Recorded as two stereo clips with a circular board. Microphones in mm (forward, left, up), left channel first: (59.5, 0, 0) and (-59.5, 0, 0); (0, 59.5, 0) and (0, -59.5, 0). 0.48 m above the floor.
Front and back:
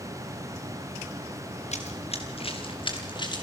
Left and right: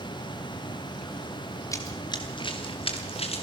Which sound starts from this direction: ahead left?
Running footsteps, at 1.7 s.